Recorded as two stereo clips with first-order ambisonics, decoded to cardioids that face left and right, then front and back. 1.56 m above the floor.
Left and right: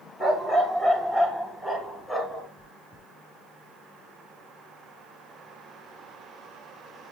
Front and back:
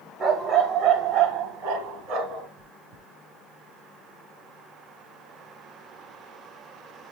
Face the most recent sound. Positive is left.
turn(degrees=150)